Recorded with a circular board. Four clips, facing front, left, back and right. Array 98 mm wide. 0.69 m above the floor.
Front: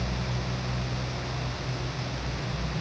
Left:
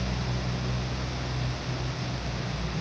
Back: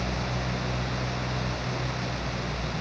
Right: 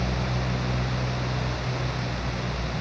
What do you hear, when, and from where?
Only background noise.